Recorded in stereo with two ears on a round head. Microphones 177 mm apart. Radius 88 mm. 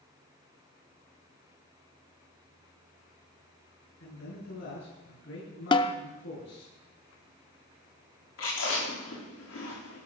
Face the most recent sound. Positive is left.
turn(degrees=70)  # may be behind; listen again after turning